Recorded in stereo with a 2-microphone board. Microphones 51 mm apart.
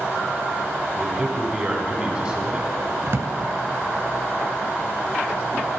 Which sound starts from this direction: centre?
A man speaking, at 1.0 s.